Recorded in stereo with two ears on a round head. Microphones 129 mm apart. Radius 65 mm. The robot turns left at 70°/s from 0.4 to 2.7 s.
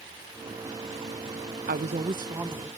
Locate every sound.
1.7 s a woman speaking: 110° right; by 2.7 s 175° left